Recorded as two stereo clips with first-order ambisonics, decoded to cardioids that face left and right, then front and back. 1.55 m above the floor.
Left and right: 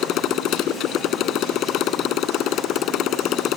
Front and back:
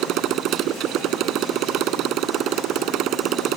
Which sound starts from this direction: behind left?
A motorcycle, at 0.0 s.